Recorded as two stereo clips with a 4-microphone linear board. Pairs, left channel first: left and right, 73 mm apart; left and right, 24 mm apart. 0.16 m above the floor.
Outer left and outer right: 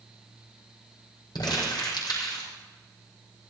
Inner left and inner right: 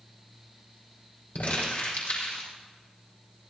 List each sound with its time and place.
1.4 s crumpling: 75° left (ahead or behind), 5.5 m